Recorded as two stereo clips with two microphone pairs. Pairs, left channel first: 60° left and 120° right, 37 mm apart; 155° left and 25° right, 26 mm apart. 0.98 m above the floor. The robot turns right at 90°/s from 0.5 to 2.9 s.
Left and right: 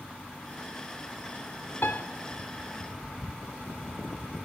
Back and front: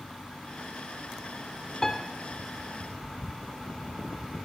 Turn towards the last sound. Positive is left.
turn(degrees=180)